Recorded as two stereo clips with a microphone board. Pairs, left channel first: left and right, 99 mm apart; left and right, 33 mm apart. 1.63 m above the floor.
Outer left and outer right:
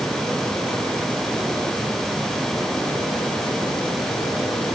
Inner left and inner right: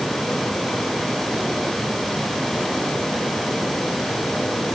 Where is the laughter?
No laughter in this recording.